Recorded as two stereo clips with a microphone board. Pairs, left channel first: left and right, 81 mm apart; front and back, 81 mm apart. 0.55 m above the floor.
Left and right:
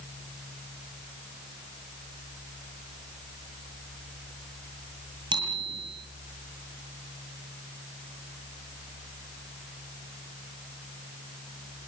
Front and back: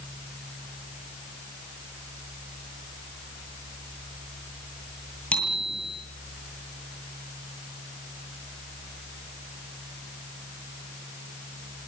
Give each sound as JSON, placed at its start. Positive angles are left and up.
{"t": 5.3, "sound": "a bicycle bell", "azimuth_deg": -75, "distance_m": 9.5}